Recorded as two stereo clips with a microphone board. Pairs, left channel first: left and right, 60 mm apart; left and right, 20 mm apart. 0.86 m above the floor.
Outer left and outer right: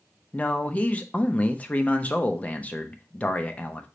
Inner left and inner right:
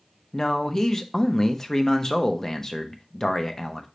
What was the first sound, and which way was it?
A man speaking, 25° left (ahead or behind).